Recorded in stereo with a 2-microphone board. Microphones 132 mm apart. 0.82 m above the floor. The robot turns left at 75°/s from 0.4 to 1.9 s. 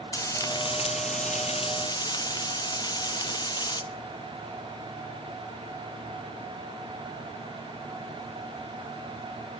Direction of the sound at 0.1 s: 150° left.